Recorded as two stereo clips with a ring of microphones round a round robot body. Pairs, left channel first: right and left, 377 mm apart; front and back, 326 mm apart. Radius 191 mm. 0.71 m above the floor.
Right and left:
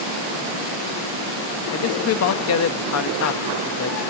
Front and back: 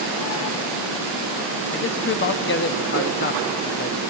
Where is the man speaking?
50° right, 0.6 m.